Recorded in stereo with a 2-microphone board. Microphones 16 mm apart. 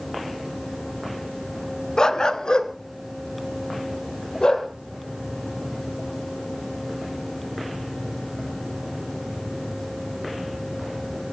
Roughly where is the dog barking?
Left.